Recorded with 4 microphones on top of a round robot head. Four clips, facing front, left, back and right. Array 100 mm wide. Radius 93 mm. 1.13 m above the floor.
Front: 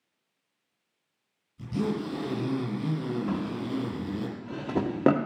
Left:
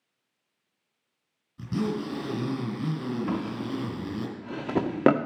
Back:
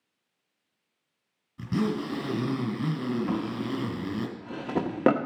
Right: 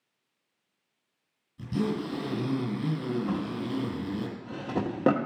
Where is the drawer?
100° left, 0.6 m.